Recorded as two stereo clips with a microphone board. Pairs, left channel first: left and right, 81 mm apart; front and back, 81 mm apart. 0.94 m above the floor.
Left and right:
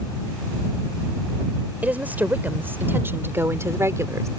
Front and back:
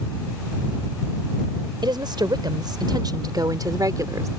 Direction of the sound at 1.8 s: 160° right.